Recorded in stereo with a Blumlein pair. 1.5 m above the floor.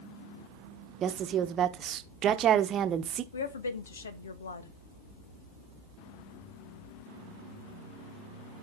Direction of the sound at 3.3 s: 65° left.